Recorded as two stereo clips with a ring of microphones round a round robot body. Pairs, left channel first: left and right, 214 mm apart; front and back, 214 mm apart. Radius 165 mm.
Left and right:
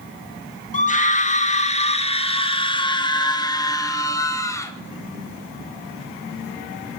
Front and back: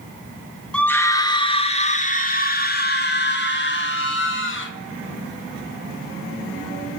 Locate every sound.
0.7 s a scream: 80° left, 1.7 m; by 4.7 s 15° left, 3.5 m